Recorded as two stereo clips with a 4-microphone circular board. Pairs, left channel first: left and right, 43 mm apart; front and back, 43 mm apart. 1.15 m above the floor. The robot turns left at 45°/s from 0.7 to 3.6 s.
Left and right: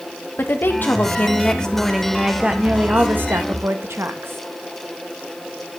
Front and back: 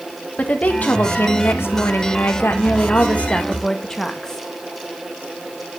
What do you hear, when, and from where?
0.4 s a woman speaking: 55° left, 1.7 m; by 4.4 s 75° right, 1.7 m